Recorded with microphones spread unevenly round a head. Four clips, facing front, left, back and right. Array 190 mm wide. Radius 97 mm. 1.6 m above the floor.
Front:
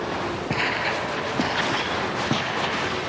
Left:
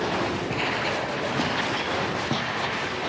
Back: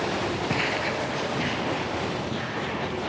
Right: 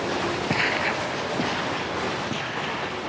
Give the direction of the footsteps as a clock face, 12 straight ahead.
2 o'clock.